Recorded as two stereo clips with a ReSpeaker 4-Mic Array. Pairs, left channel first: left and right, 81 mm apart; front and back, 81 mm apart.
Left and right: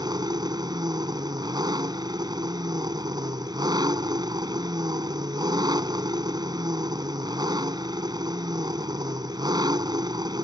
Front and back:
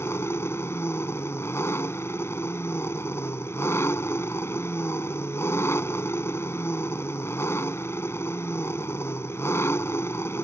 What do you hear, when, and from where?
0.0 s an engine running: 60° right